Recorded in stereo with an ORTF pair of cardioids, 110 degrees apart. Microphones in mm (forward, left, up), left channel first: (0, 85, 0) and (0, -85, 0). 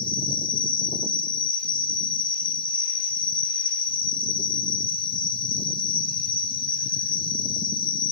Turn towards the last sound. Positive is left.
turn(degrees=30)